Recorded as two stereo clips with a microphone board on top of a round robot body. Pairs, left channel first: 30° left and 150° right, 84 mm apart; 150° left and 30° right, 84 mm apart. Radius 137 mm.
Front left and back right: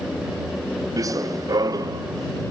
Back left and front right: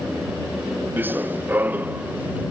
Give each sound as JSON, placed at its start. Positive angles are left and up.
{"t": 1.0, "sound": "running footsteps", "azimuth_deg": -100}